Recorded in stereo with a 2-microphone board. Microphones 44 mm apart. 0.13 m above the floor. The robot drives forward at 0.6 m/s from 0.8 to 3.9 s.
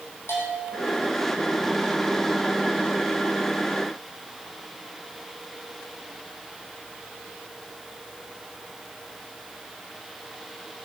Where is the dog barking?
No dog barking in this recording.